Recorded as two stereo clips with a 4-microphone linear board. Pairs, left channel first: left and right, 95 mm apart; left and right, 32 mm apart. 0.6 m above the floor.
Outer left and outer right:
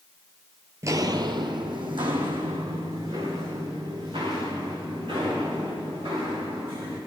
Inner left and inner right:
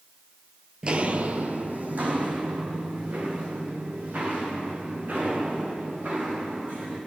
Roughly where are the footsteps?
Right.